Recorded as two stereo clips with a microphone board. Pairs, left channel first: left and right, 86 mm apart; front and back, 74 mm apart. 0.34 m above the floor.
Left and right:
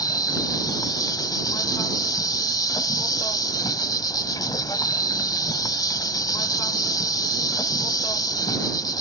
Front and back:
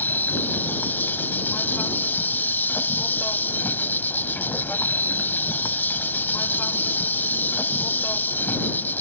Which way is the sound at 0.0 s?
60° left.